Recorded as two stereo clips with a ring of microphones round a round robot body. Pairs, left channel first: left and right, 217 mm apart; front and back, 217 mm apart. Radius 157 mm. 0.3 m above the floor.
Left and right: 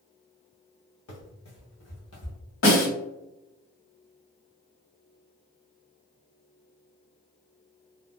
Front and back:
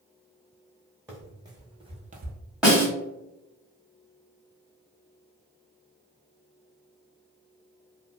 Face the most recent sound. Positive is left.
turn(degrees=95)